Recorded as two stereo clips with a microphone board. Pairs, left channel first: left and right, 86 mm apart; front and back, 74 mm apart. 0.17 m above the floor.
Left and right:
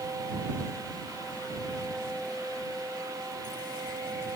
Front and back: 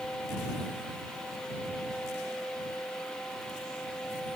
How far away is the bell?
No bell in this recording.